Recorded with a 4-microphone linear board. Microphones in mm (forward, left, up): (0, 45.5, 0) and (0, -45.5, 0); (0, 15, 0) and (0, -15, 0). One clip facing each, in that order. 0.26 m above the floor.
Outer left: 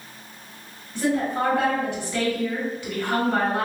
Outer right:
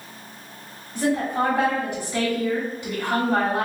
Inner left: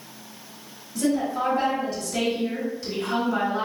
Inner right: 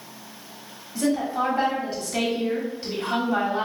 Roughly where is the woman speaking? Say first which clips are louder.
Outer right 1 dB, even; centre.